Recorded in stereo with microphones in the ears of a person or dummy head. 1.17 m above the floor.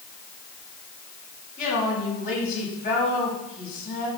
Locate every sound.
1.6 s a woman speaking: 50° left (ahead or behind), 7 m